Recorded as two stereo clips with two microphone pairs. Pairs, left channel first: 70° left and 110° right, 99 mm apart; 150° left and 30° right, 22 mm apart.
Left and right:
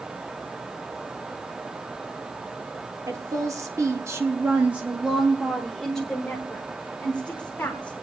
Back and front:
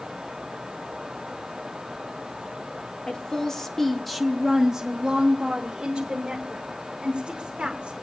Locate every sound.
3.1 s a woman speaking: 155° right, 1.1 m; by 7.9 s straight ahead, 2.5 m